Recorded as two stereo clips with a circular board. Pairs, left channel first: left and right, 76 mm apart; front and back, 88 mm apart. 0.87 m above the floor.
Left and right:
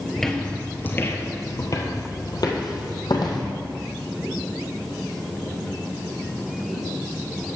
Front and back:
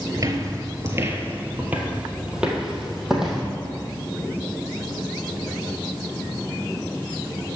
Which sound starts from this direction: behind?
Footsteps, at 0.2 s.